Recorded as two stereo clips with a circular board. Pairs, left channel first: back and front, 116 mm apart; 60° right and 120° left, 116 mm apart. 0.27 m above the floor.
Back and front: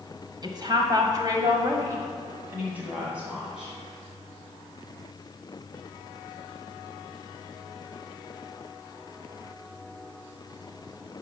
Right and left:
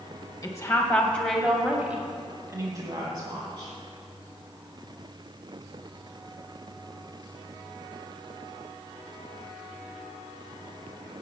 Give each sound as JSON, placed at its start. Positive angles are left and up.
{"t": 0.4, "sound": "a woman speaking", "azimuth_deg": -20, "distance_m": 1.5}